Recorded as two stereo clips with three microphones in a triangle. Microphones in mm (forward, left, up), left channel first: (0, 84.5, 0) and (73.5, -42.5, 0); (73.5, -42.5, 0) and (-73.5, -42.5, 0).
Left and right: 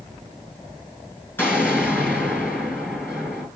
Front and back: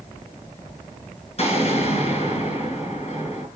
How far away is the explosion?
About 5.5 m.